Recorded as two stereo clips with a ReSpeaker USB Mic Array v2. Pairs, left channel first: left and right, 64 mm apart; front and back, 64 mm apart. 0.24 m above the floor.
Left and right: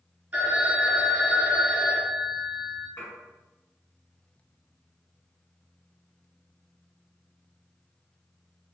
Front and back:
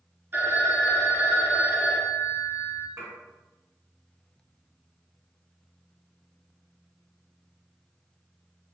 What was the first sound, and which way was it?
A phone ringing, 145° right.